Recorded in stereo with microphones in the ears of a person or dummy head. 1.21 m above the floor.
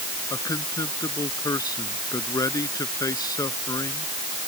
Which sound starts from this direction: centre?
A man speaking, at 0.3 s.